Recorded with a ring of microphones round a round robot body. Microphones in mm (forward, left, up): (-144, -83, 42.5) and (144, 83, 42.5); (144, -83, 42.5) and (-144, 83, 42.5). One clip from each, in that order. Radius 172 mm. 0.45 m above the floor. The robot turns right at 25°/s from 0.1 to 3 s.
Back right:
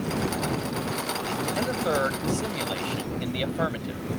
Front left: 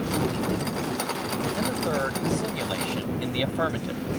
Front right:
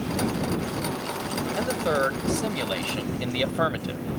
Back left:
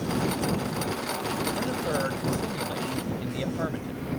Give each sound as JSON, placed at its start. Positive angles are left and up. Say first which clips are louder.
{"t": 1.6, "sound": "a man speaking", "louder": "back right 3 dB, front right 4 dB", "azimuth_deg": -95}